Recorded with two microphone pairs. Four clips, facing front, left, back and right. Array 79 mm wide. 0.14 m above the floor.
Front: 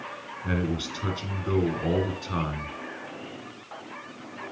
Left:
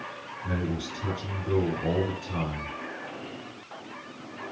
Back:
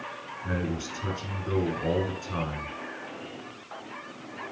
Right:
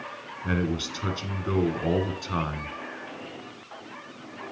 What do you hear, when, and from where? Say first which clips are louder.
0.4 s a man speaking: right 4 dB, front 3 dB; 80° right, 2 m